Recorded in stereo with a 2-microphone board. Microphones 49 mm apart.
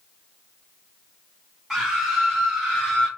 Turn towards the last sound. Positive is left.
turn(degrees=15)  # may be behind; listen again after turning